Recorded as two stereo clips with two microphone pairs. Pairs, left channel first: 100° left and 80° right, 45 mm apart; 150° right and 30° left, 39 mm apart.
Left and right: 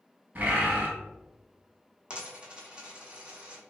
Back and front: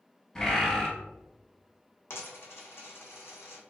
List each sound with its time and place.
0.3 s a bird: 85° right, 0.9 m
2.1 s a dropped coin: 150° right, 0.7 m